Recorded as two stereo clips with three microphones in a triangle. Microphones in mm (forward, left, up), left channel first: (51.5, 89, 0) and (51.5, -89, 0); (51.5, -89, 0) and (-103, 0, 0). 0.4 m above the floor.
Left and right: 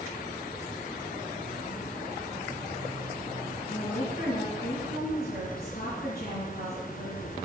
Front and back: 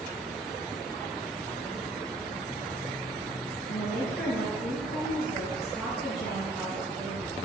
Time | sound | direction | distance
3.7 | a woman speaking | 60° left | 4.5 m